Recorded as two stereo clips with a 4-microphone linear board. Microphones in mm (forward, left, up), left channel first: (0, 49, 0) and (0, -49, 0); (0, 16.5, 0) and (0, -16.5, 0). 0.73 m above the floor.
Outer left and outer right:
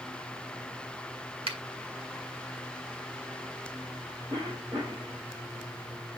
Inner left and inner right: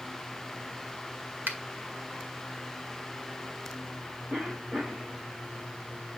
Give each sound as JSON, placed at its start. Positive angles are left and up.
{"t": 1.5, "sound": "a finger snap", "side_deg": -80, "distance_m": 1.8}
{"t": 4.3, "sound": "a cough", "side_deg": -55, "distance_m": 4.0}